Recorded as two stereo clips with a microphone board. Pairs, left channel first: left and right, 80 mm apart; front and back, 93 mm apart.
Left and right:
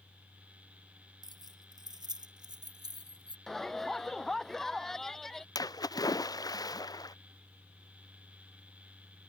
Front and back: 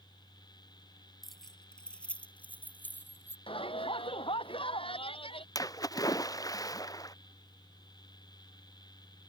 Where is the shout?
5° left.